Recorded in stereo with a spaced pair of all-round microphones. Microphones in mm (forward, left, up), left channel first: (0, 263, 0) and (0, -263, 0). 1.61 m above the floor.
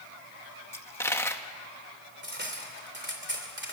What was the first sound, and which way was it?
A dropped coin, 5° left (ahead or behind).